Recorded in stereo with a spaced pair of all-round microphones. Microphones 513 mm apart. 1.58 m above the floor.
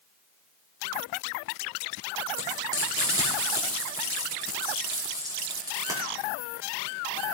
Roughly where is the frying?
Centre.